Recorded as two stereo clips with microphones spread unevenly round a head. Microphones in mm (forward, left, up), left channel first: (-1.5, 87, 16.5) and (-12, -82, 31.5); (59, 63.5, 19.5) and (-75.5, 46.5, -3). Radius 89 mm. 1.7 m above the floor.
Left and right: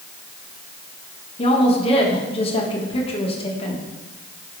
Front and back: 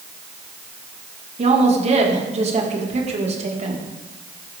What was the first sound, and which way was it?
A woman speaking, 145° left.